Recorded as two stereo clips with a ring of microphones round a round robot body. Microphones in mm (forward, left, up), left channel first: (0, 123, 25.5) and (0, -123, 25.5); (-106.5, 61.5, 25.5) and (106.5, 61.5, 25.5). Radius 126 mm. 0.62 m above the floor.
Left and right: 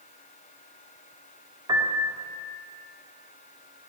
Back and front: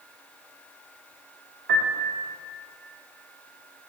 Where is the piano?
20° right, 1.8 m.